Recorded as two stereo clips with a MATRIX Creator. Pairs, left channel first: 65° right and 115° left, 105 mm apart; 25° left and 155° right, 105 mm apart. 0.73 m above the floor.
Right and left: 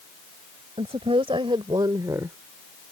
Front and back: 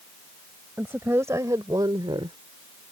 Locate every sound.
0.8 s a woman speaking: 130° left; by 2.4 s straight behind